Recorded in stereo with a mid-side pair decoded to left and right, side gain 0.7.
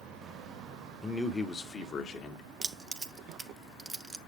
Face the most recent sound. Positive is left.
turn(degrees=-20)